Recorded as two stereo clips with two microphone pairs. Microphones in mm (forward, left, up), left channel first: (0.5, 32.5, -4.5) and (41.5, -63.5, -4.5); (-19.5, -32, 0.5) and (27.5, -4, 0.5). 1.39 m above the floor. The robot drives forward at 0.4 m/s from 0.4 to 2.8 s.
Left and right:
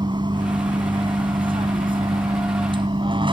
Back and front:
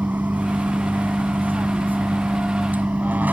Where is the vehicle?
25° right; by 3.3 s 30° right.